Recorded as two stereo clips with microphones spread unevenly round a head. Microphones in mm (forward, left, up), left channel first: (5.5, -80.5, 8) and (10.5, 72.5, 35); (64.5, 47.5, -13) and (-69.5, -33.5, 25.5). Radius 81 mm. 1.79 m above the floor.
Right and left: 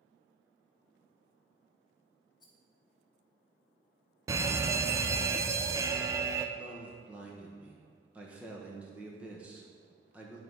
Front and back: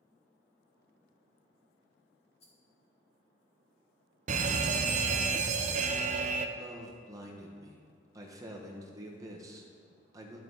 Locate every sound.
2.4 s a rattle: 25° right, 1.3 m
4.3 s a fire alarm: 165° left, 0.5 m
6.6 s a man speaking: 160° left, 1.1 m